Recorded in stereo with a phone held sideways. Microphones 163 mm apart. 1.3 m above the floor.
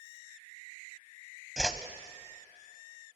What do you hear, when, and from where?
1.6 s a whoosh: 5° right (ahead or behind), 1.1 m